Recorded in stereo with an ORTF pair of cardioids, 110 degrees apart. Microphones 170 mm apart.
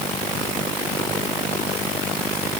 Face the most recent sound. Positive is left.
No sound to turn to.